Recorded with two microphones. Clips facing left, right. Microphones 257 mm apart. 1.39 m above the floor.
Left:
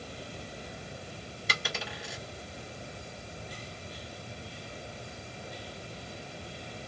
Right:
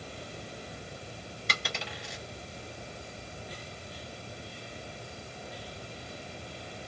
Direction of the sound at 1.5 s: 5° left (ahead or behind).